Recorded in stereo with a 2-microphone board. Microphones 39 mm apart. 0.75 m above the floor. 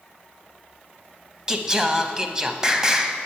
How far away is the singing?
About 0.6 m.